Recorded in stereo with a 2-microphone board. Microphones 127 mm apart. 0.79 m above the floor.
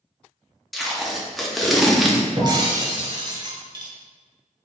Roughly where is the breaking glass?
Right.